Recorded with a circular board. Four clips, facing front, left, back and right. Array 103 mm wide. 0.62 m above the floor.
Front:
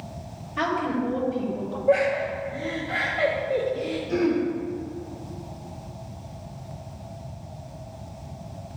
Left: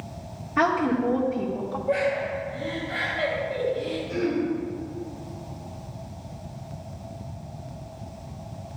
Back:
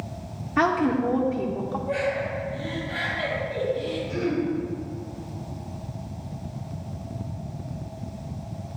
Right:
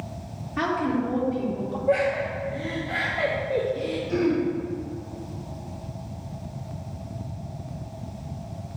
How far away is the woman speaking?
About 1.5 m.